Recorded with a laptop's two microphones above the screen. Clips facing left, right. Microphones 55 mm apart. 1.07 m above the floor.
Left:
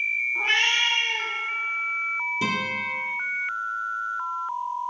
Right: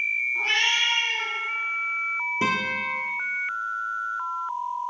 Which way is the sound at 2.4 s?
40° right (ahead or behind).